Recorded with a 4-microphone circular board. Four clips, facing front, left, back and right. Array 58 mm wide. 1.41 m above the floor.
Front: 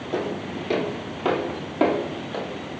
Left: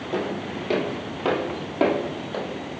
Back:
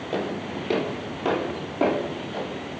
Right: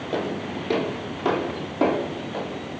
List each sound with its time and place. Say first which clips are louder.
0.1 s footsteps: even, front 1 dB; 175° right, 1.4 m; by 2.5 s 35° left, 2 m